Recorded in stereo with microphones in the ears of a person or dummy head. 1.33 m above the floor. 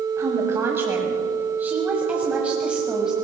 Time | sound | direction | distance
0.2 | a woman speaking | 20° right (ahead or behind) | 7 m